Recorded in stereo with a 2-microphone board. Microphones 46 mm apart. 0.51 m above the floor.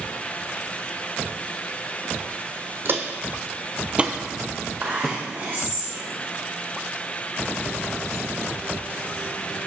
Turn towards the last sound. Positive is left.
turn(degrees=-60)  # may be behind; listen again after turning